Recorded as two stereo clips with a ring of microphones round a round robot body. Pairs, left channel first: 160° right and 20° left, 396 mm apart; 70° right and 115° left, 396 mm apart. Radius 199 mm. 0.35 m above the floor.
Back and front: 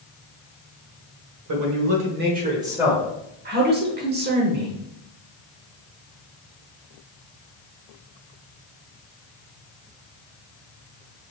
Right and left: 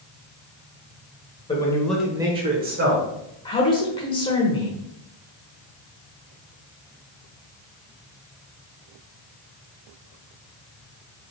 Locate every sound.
1.5 s a man speaking: 5° left, 1.2 m; by 3.0 s 120° left, 1.1 m
3.5 s a man speaking: 5° right, 0.9 m